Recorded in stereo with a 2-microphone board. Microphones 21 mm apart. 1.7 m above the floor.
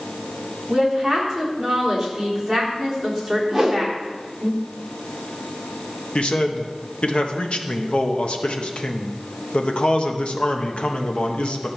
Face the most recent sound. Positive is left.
turn(degrees=55)  # may be behind; listen again after turning